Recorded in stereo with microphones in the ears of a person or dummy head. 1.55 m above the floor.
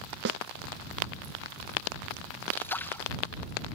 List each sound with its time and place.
0.2 s a snare drum: 60° right (ahead or behind)
2.5 s a splash: 15° left (ahead or behind)